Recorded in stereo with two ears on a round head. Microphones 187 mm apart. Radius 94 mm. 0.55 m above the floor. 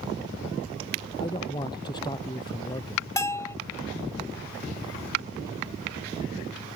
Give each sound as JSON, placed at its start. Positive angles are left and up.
{"t": 1.2, "sound": "a man speaking", "side_deg": 20}
{"t": 3.2, "sound": "a bell", "side_deg": 15}